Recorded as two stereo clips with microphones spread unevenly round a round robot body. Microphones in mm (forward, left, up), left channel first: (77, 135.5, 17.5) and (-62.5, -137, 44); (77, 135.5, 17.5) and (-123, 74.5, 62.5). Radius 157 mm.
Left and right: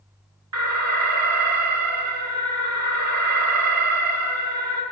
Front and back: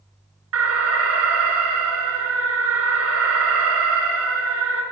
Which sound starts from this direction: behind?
An alarm, at 0.5 s.